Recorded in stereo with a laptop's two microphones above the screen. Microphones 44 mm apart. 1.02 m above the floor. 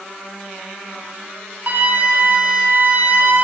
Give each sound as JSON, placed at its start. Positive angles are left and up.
{"t": 1.7, "sound": "a flute", "side_deg": -40, "distance_m": 1.0}